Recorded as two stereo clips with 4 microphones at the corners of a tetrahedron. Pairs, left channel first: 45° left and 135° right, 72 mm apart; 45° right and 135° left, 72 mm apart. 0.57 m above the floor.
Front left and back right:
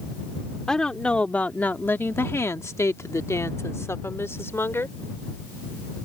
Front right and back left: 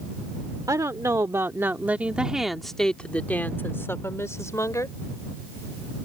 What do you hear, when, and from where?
0.7 s a woman speaking: 120° left; by 5.0 s 10° right